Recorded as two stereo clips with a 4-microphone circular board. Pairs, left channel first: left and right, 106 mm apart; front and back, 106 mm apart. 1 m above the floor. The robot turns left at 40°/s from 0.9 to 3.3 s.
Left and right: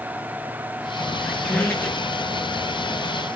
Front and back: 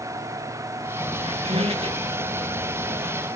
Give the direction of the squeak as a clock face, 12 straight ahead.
6 o'clock.